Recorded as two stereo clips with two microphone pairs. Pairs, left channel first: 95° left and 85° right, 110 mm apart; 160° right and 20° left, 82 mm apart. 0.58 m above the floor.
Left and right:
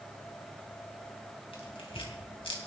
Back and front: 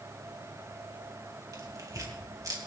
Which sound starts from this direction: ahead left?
Tearing paper, at 1.5 s.